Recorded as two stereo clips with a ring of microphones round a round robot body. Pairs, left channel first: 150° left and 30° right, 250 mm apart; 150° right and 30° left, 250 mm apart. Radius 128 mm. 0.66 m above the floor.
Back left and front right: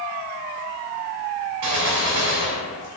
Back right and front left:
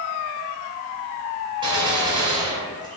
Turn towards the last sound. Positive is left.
turn(degrees=-40)